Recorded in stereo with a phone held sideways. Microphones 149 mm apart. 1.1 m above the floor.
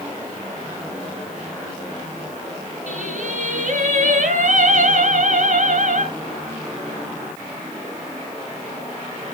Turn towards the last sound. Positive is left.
turn(degrees=-65)  # may be behind; listen again after turning